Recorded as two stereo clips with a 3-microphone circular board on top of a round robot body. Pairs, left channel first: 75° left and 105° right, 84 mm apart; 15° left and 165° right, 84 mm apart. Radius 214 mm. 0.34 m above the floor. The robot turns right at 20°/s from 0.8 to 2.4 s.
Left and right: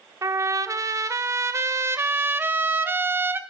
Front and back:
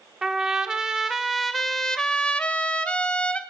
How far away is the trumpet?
About 0.6 m.